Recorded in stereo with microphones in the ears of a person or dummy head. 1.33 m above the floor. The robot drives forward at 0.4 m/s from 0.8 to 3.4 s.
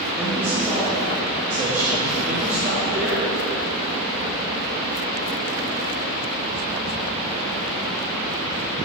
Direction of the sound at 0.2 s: 5° right (ahead or behind).